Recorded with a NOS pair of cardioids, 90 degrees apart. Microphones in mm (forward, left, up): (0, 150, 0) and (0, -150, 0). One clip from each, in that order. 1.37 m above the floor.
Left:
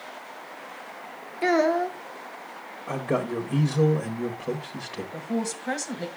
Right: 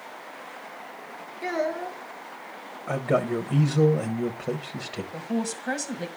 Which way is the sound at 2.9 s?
15° right.